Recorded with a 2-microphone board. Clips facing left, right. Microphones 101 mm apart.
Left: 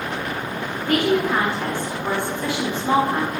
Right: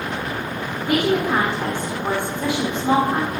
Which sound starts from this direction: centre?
A woman speaking, at 0.9 s.